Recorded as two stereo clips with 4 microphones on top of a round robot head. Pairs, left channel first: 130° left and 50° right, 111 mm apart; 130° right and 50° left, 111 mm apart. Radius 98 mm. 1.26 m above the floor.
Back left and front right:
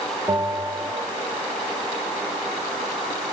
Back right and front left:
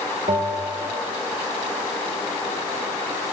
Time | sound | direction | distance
0.3 | a bell | 15° left | 1.5 m